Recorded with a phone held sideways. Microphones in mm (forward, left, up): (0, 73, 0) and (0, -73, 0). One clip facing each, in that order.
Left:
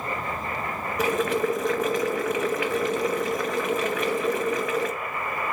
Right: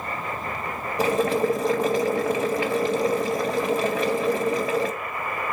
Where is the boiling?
30° right (ahead or behind), 0.7 m.